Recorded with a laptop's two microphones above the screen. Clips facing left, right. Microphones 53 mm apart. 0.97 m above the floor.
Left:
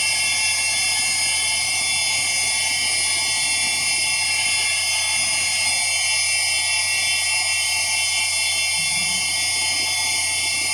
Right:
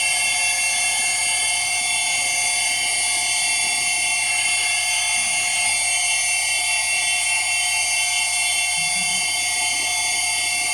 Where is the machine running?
10° right (ahead or behind), 1.4 m.